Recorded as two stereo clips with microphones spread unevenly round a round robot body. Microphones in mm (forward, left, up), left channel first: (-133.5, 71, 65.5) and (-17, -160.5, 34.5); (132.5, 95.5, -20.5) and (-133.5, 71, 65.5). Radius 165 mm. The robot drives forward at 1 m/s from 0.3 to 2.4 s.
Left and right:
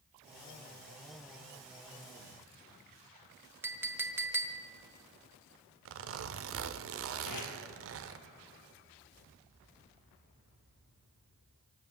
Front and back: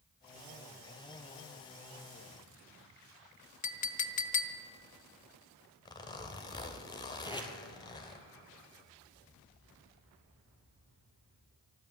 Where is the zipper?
55° right, 0.9 m.